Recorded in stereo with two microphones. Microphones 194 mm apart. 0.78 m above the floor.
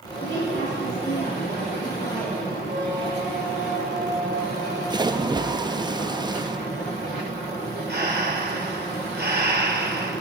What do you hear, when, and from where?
0.2 s a woman speaking: 65° left (ahead or behind), 7.5 m
2.7 s a squeak: 50° right (ahead or behind), 4.5 m
4.9 s a splash: 20° right (ahead or behind), 0.7 m
7.9 s breathing: 55° right (ahead or behind), 3.5 m